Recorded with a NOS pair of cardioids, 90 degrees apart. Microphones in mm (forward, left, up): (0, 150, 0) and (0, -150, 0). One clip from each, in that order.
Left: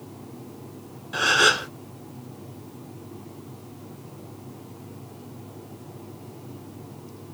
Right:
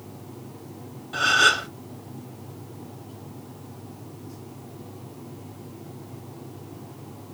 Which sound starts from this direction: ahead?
A gasp, at 1.1 s.